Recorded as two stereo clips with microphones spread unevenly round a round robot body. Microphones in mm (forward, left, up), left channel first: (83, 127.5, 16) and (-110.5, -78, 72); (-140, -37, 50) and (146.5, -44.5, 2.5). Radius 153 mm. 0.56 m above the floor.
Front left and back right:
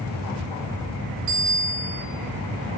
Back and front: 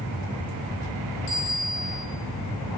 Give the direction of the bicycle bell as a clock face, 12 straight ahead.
5 o'clock.